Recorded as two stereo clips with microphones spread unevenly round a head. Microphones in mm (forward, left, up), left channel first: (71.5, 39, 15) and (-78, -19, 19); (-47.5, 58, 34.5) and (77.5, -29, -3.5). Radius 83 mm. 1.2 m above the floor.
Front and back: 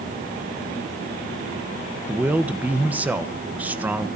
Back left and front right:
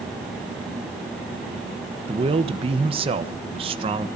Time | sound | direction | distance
2.1 | a man speaking | 80° right | 1.2 m